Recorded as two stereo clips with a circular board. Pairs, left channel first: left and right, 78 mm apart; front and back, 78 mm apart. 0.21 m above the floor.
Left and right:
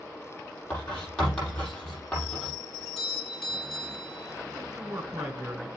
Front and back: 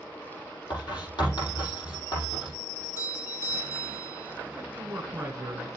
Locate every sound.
0.7 s writing: 10° left, 5.5 m
2.7 s a doorbell: 10° left, 2.5 m
4.5 s a man speaking: 115° right, 1.9 m